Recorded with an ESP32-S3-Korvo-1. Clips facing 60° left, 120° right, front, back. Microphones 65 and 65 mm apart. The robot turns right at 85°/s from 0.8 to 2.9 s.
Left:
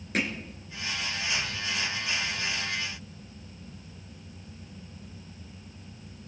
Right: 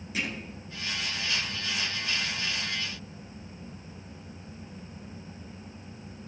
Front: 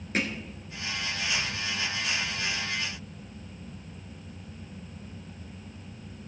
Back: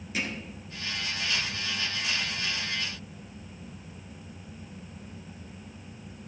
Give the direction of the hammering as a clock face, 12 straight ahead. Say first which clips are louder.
Left 4 dB, front 4 dB; 11 o'clock.